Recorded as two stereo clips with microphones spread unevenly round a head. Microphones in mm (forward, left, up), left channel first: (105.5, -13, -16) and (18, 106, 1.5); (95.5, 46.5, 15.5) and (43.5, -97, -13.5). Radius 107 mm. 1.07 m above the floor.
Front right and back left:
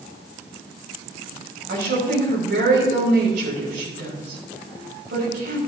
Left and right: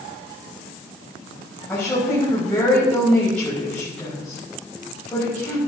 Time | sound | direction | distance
1.7 | a woman speaking | 155° left | 6 m